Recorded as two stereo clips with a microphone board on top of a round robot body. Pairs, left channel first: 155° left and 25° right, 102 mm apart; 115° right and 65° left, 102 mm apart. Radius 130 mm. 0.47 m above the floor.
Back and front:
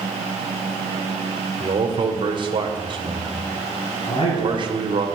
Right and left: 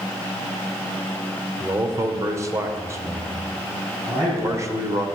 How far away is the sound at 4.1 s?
About 7.5 m.